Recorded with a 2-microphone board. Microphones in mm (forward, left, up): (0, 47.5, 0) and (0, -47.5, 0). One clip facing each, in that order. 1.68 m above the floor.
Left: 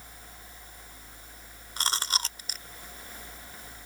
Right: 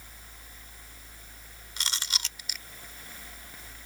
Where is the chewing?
45° left (ahead or behind).